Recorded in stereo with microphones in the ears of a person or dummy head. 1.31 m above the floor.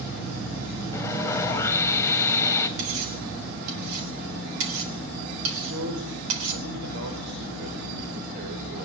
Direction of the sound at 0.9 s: 20° left (ahead or behind).